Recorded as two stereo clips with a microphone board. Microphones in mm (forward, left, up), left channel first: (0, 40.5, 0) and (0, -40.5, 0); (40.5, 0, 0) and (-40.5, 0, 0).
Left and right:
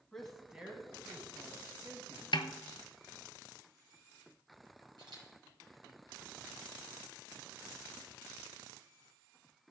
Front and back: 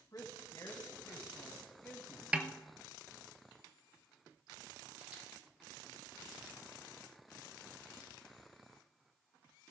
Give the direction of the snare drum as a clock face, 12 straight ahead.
9 o'clock.